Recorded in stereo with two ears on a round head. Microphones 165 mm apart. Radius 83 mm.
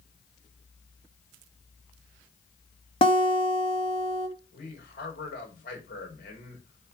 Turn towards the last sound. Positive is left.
turn(degrees=60)  # may be behind; listen again after turning